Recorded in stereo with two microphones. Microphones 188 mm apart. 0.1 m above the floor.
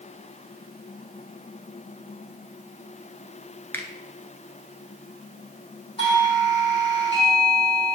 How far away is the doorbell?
About 5 m.